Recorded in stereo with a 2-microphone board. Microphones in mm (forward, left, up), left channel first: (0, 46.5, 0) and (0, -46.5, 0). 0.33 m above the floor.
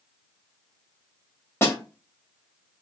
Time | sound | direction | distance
1.6 | a snare drum | 25° left (ahead or behind) | 1.7 m